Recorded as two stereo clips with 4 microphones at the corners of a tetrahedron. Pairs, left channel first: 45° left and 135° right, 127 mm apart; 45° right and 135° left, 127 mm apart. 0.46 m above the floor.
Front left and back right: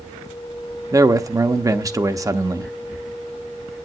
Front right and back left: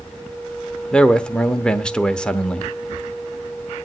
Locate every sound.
0.9 s a man speaking: 120° right, 0.8 m